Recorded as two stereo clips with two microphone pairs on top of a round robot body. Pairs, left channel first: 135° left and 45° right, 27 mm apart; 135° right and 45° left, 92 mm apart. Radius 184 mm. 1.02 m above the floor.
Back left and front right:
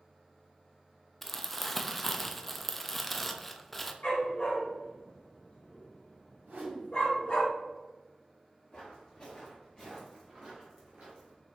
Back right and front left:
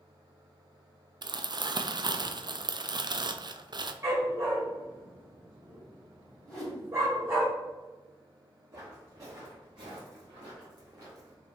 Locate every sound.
1.2 s crumpling: 45° left, 0.6 m
4.0 s a dog barking: 105° left, 1.2 m
6.5 s a whoosh: 60° right, 1.4 m
8.7 s footsteps: 105° left, 1.9 m; by 11.3 s 35° right, 1.3 m